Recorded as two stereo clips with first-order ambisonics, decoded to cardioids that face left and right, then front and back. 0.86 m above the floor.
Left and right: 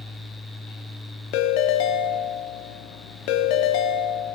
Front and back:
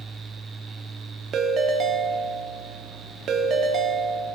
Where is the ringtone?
120° left, 0.9 m.